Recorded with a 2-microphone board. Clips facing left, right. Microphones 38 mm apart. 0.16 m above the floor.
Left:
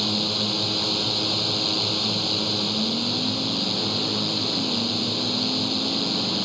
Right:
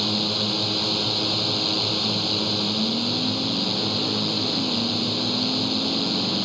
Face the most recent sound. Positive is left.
turn(degrees=-5)  # may be behind; listen again after turning